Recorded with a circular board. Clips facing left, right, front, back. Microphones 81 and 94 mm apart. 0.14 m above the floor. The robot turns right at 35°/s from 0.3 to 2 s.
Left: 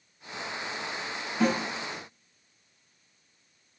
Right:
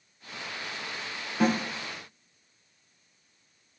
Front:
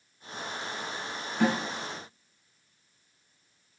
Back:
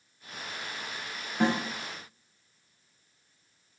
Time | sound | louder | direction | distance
1.4 | a snare drum | right 1 dB, even | 135° right | 1.2 m